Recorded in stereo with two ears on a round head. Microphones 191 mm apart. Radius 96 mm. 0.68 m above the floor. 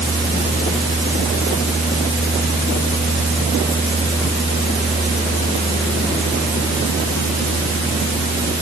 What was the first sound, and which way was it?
Only background noise.